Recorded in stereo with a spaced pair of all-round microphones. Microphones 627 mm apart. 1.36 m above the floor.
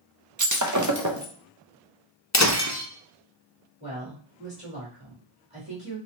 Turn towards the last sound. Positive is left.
turn(degrees=-10)  # may be behind; listen again after turning